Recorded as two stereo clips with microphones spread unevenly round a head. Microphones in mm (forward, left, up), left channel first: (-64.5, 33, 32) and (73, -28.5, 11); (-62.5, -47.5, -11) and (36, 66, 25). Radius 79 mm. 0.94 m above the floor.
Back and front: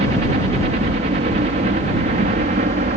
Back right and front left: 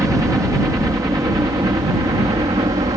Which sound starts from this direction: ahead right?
A helicopter, at 0.0 s.